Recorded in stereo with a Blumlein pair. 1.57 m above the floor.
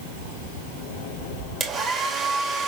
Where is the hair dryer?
25° right, 2 m.